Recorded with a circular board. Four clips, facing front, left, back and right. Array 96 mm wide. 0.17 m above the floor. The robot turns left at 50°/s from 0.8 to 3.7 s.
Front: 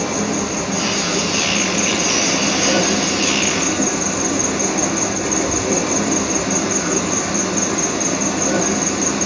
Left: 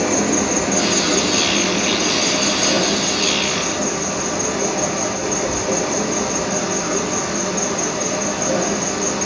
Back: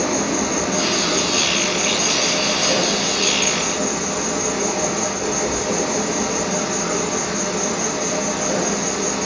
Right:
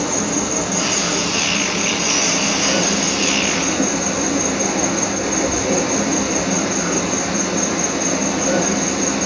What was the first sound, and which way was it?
An insect, 95° left.